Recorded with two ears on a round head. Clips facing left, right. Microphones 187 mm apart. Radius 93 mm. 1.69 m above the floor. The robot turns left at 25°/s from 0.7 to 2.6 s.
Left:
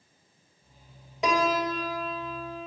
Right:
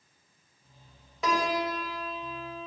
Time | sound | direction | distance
1.2 | a piano | 160° left | 2.5 m